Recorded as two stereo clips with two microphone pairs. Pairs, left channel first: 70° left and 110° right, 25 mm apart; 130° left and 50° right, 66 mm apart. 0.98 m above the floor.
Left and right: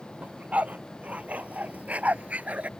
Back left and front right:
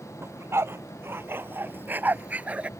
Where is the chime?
I don't hear a chime.